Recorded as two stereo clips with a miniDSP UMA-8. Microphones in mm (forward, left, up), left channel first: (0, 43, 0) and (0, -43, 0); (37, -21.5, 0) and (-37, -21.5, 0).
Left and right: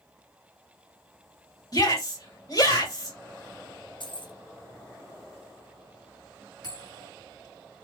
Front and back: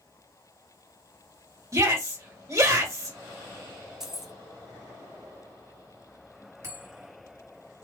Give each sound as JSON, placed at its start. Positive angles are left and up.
{"t": 1.7, "sound": "a shout", "azimuth_deg": 130, "distance_m": 2.0}
{"t": 4.0, "sound": "keys jangling", "azimuth_deg": 95, "distance_m": 0.7}
{"t": 6.6, "sound": "a bell", "azimuth_deg": 125, "distance_m": 2.0}